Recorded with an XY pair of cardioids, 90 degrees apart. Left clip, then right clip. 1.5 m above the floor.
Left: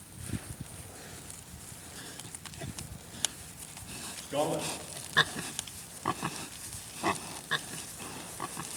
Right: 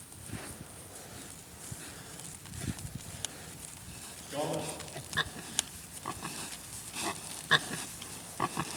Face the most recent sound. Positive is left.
turn(degrees=45)